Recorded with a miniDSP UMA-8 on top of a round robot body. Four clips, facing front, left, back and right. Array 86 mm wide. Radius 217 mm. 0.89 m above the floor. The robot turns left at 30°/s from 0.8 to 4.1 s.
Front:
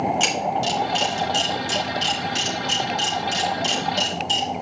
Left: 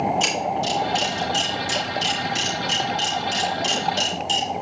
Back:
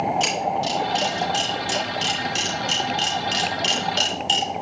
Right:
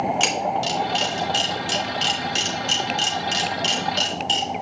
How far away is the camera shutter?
About 3.5 m.